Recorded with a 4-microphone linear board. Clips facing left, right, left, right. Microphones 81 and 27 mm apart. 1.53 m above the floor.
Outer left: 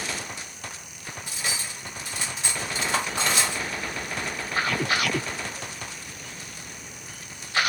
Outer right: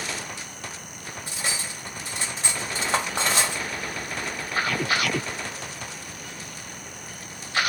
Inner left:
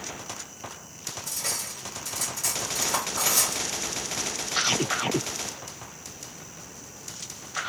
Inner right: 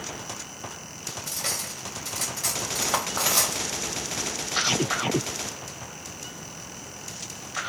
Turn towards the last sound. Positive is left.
turn(degrees=-35)  # may be behind; listen again after turning